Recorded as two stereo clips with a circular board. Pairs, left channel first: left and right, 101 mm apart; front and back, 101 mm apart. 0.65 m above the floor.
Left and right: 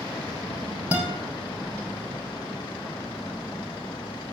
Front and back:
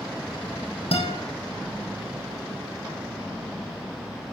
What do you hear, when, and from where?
0.9 s a guitar: 15° right, 5 m